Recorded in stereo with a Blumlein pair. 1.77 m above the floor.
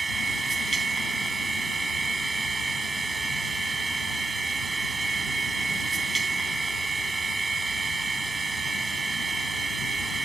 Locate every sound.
0.0 s a machine running: 15° right